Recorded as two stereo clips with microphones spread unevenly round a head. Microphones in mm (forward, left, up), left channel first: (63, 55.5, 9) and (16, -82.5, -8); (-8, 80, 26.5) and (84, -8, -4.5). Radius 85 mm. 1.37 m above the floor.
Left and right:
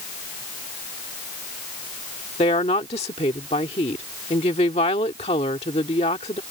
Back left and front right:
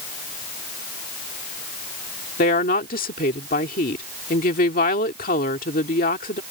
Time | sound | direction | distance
2.4 | a woman speaking | 130° left | ?